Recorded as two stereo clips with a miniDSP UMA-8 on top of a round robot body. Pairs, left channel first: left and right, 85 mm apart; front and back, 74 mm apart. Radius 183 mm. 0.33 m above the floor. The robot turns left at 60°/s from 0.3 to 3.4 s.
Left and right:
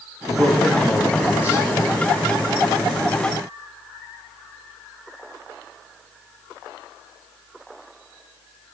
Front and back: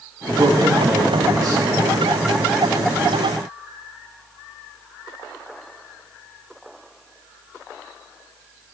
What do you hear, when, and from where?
0.3 s a man speaking: 145° right, 5 m; by 1.6 s 135° left, 5 m